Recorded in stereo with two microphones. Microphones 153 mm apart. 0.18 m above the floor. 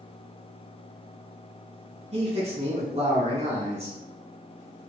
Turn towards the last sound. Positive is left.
turn(degrees=-45)  # may be behind; listen again after turning